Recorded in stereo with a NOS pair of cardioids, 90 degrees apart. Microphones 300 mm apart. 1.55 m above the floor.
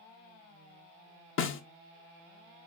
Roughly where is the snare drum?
Ahead left.